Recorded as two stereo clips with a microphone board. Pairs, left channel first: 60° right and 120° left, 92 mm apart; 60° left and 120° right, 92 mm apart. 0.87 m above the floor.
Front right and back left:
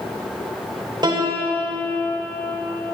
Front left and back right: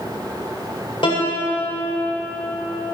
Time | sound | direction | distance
1.0 | a piano | 85° left | 2 m